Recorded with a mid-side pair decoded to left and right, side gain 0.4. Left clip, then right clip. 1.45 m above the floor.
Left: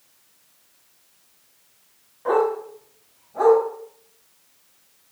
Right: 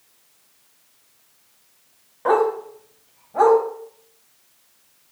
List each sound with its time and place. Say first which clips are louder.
2.2 s a dog barking: right 2 dB; 65° right, 3.5 m